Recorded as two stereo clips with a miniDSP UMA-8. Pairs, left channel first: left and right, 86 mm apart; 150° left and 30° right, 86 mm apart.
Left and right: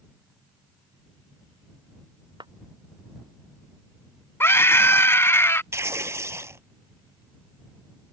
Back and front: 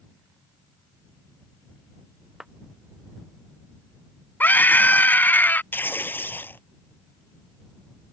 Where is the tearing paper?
145° right.